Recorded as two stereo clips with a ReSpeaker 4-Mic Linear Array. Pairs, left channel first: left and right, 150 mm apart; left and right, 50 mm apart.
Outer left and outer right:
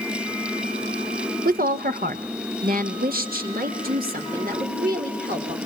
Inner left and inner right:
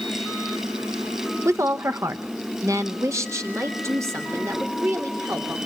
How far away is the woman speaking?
About 1.0 m.